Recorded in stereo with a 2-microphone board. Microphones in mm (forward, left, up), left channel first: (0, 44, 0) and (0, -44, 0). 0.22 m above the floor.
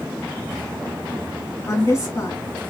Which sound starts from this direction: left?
A woman speaking, at 1.7 s.